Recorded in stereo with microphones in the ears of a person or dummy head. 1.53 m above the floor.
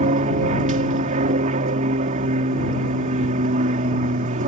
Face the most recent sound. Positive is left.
turn(degrees=-40)  # may be behind; listen again after turning